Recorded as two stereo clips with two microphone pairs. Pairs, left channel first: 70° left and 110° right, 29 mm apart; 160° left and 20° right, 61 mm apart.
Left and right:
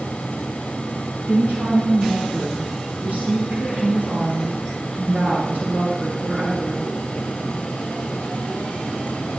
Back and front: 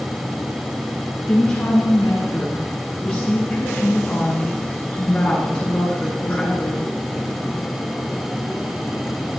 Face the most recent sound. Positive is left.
turn(degrees=-130)